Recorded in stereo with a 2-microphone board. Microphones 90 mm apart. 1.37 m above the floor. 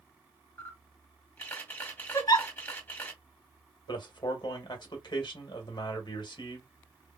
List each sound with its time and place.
0.6 s a camera shutter: 20° left (ahead or behind), 1.8 m
2.1 s a giggle: 45° left (ahead or behind), 1.2 m
3.9 s a man speaking: 50° left (ahead or behind), 1.5 m